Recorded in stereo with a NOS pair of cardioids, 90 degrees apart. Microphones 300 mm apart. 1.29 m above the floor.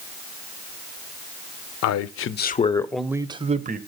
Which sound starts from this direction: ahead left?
A man speaking, at 1.8 s.